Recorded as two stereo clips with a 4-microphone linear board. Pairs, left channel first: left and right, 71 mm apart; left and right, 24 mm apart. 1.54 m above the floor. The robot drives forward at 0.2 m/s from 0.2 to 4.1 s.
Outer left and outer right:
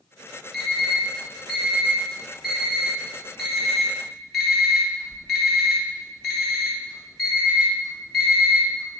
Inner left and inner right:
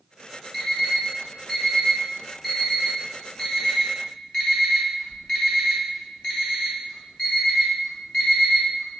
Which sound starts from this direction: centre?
An alarm clock, at 0.5 s.